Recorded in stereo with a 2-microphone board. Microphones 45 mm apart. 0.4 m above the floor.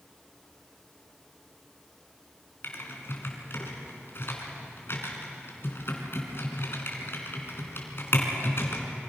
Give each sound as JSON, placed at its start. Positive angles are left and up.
{"t": 2.6, "sound": "typing on a keyboard", "side_deg": 60, "distance_m": 3.5}